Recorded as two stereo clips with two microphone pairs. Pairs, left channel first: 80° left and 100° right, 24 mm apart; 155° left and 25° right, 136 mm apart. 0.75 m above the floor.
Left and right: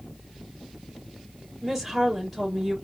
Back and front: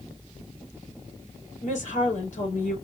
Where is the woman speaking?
Straight behind, 3 m.